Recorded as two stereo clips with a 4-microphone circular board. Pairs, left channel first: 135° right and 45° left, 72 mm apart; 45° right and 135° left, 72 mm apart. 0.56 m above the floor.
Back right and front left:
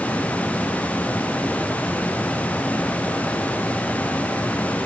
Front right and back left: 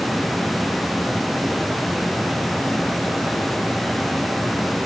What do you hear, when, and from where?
Only background noise.